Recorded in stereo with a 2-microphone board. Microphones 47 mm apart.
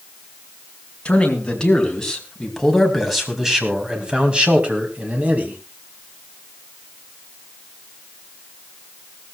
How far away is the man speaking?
About 4.5 m.